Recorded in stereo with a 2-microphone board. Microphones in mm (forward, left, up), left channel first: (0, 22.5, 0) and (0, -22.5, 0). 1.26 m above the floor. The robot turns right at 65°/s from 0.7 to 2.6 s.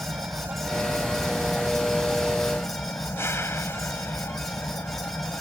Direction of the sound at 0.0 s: 60° right.